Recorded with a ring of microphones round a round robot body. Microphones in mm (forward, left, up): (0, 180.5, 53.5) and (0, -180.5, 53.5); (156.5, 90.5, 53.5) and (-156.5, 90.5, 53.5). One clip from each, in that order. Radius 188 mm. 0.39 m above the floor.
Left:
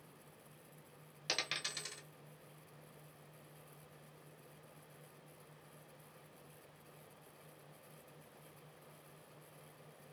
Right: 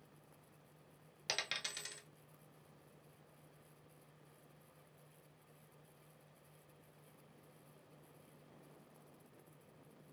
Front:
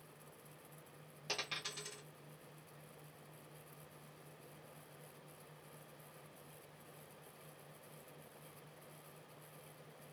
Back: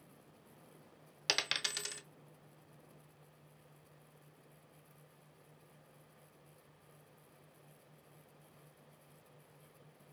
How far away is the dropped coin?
About 0.6 m.